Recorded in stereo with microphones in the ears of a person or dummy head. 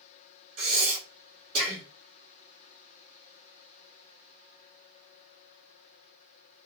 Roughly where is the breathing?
Right.